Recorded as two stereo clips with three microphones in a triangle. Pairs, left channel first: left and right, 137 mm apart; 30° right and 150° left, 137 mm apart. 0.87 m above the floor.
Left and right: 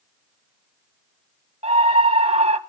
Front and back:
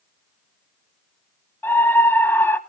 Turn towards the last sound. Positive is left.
turn(degrees=-100)